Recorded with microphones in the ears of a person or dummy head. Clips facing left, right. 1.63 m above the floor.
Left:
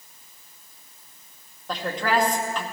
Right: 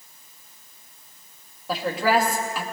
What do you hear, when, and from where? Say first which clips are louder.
1.7 s a woman speaking: right 3 dB; 10° right (ahead or behind), 2 m